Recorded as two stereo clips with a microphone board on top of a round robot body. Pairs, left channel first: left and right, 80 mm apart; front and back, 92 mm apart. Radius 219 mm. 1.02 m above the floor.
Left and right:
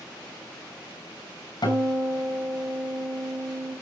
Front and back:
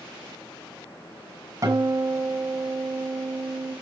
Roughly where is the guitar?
Behind left.